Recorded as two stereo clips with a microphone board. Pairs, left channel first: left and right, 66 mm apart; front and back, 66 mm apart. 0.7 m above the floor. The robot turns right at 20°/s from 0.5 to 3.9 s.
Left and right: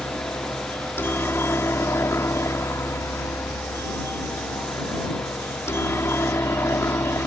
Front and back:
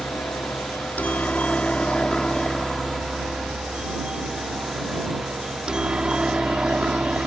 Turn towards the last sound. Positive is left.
turn(degrees=110)